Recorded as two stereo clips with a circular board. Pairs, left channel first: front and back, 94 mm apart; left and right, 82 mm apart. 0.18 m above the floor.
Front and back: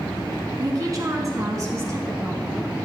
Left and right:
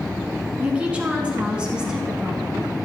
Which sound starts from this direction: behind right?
A woman speaking, at 0.6 s.